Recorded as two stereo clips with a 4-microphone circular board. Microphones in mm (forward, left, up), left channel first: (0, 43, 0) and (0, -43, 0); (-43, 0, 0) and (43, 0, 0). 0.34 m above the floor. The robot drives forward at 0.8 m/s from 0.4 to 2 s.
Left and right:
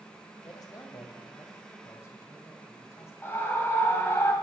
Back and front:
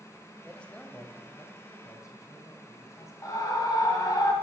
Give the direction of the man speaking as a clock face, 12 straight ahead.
9 o'clock.